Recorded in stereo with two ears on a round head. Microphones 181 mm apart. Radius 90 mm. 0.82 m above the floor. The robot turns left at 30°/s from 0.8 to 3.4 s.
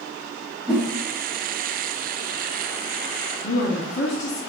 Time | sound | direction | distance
0.7 | a whoosh | 5° right (ahead or behind) | 3 m
3.4 | a woman speaking | 60° left (ahead or behind) | 1.5 m